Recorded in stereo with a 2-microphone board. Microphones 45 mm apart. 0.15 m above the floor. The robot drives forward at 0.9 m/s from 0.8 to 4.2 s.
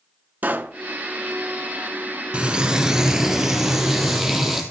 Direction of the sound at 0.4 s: 40° right (ahead or behind).